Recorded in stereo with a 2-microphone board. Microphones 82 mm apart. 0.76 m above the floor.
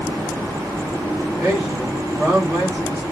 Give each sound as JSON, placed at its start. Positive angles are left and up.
{"t": 1.4, "sound": "a man speaking", "side_deg": -10, "distance_m": 1.6}